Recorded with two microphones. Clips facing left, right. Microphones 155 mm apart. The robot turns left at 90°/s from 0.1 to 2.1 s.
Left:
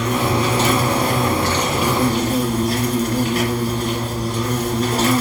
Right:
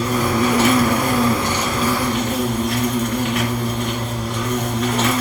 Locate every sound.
0.0 s an insect: 40° right, 2 m; by 5.2 s 140° left, 2 m